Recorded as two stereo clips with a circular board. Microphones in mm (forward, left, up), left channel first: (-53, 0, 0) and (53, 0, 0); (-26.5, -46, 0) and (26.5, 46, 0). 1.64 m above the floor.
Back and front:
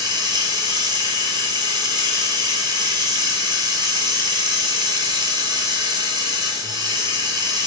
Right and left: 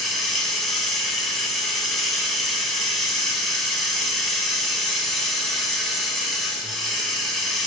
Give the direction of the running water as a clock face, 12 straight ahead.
1 o'clock.